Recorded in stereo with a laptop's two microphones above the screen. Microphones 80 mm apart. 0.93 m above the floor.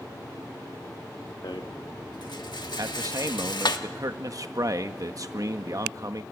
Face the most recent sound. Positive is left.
turn(degrees=-50)  # may be behind; listen again after turning